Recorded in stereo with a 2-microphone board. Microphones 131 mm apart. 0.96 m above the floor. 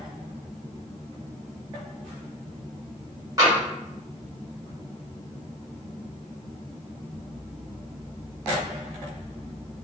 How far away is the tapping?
About 1.5 m.